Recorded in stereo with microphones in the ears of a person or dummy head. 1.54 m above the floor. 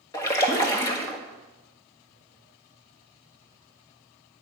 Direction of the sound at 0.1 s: 15° left (ahead or behind).